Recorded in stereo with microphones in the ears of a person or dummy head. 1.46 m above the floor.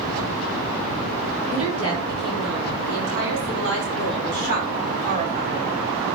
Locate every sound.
1.5 s a woman speaking: 85° right, 5 m; by 5.7 s 30° right (ahead or behind), 2 m